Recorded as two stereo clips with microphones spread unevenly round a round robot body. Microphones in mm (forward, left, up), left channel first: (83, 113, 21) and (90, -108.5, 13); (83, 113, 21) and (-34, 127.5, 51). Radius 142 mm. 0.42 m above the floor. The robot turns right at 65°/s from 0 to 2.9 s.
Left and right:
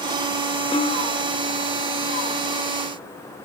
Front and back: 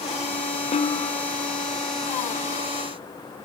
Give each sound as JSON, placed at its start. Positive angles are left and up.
{"t": 0.7, "sound": "a snare drum", "azimuth_deg": 30, "distance_m": 0.6}